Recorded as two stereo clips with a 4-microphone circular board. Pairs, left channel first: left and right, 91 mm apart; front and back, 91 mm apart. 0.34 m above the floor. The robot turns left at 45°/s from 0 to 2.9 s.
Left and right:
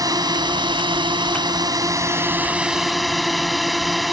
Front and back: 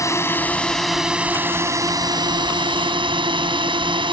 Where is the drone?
50° right; by 4.1 s straight behind.